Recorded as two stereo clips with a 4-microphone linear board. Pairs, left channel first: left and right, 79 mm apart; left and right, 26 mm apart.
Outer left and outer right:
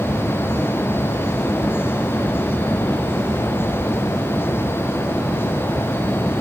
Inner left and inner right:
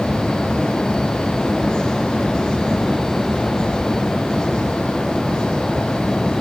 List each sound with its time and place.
Only background noise.